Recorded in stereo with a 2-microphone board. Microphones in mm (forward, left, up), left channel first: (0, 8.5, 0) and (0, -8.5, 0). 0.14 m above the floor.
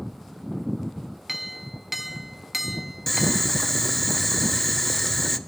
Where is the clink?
10° right (ahead or behind), 0.6 m.